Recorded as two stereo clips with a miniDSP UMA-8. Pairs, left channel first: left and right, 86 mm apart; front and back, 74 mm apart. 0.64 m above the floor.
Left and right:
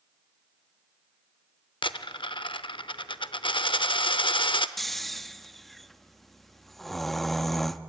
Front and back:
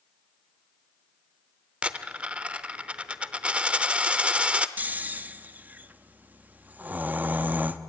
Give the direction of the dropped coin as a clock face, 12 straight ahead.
8 o'clock.